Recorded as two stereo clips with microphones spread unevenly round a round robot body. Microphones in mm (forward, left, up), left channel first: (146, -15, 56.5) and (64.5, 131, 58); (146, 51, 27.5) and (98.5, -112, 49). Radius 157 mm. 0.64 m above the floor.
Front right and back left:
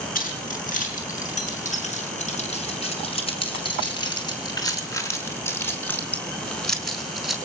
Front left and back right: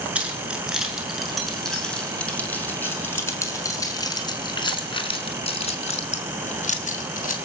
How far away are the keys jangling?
About 7.5 m.